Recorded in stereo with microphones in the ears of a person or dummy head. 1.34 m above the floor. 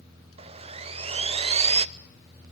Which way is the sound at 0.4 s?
30° right (ahead or behind).